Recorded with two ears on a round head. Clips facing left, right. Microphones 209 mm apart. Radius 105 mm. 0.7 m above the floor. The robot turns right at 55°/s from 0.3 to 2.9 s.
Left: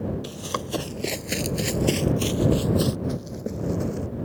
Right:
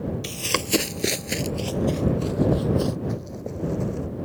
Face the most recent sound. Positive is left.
turn(degrees=20)  # may be behind; listen again after turning